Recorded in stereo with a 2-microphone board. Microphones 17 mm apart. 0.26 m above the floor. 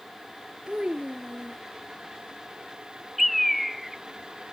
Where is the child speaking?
60° right (ahead or behind).